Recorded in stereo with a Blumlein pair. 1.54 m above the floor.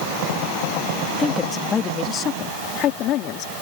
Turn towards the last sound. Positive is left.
turn(degrees=40)